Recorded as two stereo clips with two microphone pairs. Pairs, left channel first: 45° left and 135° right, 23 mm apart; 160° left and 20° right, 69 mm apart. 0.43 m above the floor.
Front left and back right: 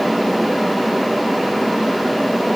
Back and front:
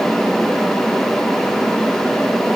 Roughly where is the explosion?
I don't hear an explosion.